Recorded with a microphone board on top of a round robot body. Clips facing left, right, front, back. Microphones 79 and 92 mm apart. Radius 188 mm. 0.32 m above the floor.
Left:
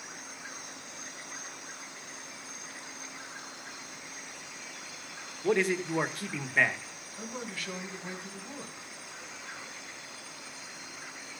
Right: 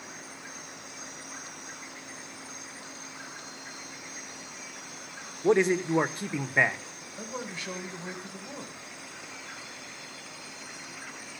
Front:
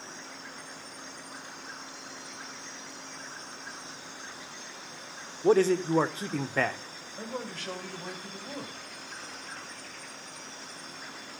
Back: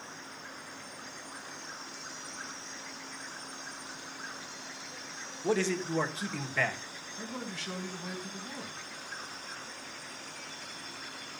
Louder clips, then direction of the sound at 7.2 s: Right 2 dB, front 3 dB; 25° right.